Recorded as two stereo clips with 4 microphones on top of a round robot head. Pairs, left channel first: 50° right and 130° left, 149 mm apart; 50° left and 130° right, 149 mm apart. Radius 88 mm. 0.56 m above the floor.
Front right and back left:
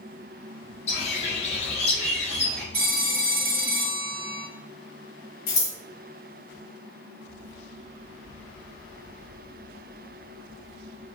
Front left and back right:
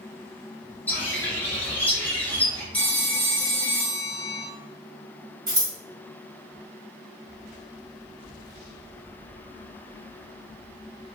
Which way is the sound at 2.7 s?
135° left.